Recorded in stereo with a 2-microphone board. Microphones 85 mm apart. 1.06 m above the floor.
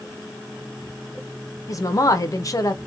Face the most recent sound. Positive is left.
turn(degrees=40)  # may be behind; listen again after turning